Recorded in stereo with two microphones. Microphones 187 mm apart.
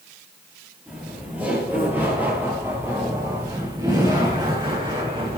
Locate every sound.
0.9 s laughter: 5° right (ahead or behind), 8.5 m; by 5.4 s 30° right (ahead or behind), 7.5 m